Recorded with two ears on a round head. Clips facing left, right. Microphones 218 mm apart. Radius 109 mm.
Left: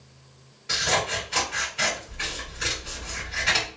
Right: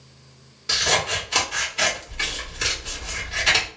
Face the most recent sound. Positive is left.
turn(degrees=-65)  # may be behind; listen again after turning